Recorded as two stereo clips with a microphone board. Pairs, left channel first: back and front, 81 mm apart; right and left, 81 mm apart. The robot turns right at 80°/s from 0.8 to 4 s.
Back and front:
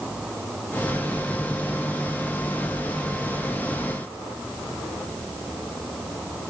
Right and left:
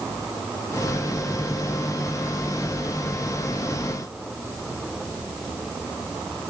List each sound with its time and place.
Only background noise.